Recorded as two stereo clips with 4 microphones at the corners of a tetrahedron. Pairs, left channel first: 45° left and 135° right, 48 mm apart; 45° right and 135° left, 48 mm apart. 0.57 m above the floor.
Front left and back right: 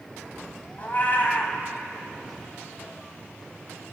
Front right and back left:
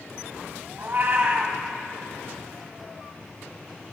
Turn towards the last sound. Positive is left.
turn(degrees=95)